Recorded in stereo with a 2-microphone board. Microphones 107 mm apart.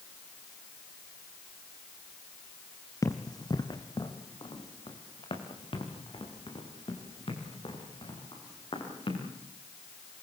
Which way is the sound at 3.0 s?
30° left (ahead or behind).